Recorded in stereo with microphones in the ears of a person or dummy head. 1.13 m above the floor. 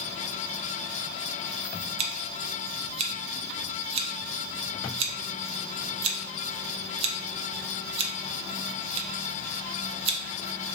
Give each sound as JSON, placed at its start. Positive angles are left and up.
{"t": 2.0, "sound": "scissors", "side_deg": -35, "distance_m": 0.5}